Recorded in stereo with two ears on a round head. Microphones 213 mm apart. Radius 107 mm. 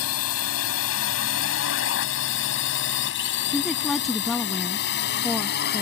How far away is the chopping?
No chopping in this recording.